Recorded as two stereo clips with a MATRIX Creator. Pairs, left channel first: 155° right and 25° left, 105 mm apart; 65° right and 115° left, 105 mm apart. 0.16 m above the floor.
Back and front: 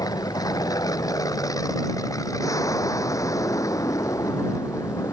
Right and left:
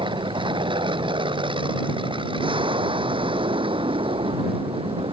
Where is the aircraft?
150° left; by 5.1 s 145° left.